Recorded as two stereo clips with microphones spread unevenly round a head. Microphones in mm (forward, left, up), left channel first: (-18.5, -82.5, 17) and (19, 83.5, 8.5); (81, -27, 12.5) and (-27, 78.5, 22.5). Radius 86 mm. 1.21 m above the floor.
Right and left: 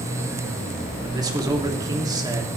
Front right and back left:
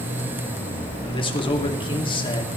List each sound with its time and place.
1.0 s a man speaking: 10° left, 2.5 m